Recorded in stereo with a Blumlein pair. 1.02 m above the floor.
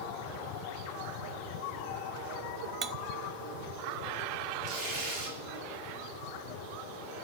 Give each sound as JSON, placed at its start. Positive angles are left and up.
{"t": 2.8, "sound": "cutlery clinking", "azimuth_deg": -25, "distance_m": 0.8}
{"t": 4.6, "sound": "tearing paper", "azimuth_deg": -45, "distance_m": 6.5}